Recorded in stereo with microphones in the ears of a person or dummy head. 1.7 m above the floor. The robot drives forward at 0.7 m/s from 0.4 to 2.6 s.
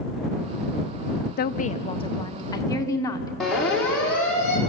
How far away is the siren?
About 6 m.